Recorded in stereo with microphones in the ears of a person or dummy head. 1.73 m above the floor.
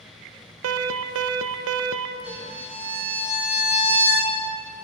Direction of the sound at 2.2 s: 55° right (ahead or behind).